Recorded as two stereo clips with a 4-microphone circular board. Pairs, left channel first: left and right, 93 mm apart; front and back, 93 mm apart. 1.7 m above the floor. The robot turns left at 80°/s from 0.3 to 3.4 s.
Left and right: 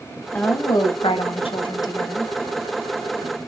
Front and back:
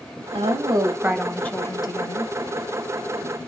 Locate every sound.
0.3 s a woman speaking: 165° left, 0.7 m; by 2.3 s 5° left, 0.7 m